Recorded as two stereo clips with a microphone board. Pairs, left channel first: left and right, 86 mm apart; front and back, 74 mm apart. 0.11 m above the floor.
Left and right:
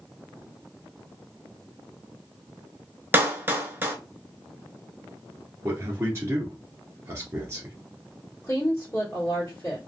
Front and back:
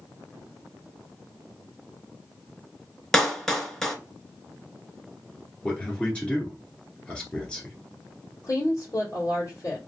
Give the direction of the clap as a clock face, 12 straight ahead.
3 o'clock.